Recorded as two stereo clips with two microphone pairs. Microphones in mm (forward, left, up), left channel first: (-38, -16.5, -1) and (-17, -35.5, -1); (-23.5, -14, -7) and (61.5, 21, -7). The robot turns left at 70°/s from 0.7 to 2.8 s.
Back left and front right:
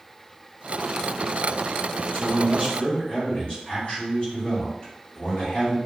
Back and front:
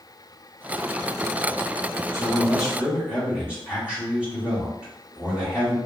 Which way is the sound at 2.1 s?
145° left.